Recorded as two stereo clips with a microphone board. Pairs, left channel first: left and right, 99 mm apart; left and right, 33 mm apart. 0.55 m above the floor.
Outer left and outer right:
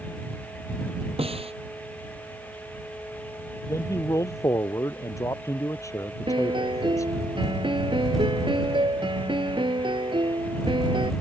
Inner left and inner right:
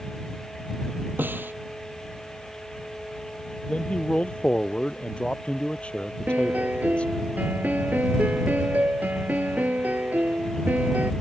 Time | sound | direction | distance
1.2 | a snare drum | 80° right | ?
3.7 | a man speaking | 30° left (ahead or behind) | ?
6.3 | a piano | 60° right (ahead or behind) | ?